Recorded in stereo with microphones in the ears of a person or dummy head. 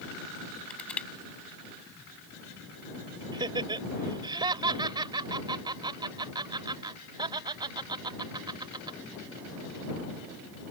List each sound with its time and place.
0.7 s crushing: 5° left (ahead or behind)
3.3 s laughter: 25° right (ahead or behind)